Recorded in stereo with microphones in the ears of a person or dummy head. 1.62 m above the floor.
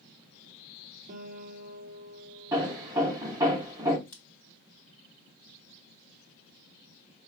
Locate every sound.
1.1 s a guitar: 50° right (ahead or behind), 0.9 m
2.5 s hammering: 15° right (ahead or behind), 0.8 m
4.1 s scissors: 10° left (ahead or behind), 0.7 m